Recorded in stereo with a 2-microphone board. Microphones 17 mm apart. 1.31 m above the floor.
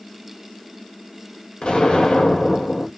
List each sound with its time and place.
1.6 s an explosion: 70° left (ahead or behind), 1.9 m